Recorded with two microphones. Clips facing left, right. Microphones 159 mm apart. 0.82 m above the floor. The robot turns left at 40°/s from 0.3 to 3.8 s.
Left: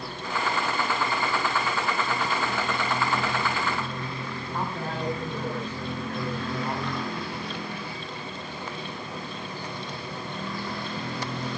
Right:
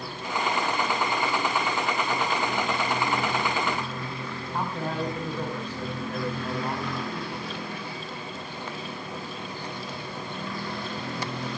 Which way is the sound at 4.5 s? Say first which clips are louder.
Right 2 dB; 10° right (ahead or behind).